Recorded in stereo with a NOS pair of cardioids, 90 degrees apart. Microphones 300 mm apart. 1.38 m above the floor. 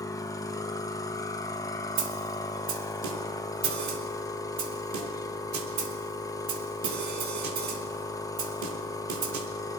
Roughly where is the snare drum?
Right.